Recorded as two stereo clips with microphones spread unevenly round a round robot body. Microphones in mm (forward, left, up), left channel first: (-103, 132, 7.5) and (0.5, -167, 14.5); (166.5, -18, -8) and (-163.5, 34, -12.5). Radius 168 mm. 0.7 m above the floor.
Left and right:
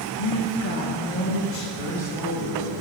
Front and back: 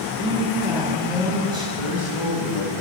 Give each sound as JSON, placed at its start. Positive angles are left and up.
{"t": 0.2, "sound": "a woman speaking", "azimuth_deg": 100, "distance_m": 1.6}
{"t": 1.8, "sound": "a man speaking", "azimuth_deg": -55, "distance_m": 3.0}